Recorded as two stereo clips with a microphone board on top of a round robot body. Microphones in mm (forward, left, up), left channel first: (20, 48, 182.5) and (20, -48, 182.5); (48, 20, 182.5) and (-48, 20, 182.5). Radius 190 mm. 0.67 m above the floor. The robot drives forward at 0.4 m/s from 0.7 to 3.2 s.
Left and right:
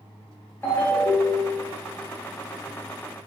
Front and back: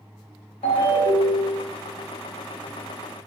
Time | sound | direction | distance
0.6 | a ringtone | 20° left | 0.9 m